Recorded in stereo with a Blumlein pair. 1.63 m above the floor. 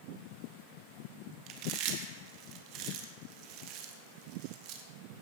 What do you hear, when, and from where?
1.5 s chewing: 40° right, 1.5 m